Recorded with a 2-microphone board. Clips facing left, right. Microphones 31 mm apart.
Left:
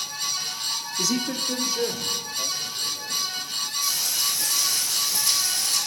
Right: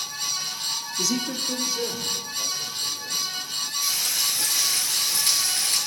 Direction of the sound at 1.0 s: Centre (ahead or behind).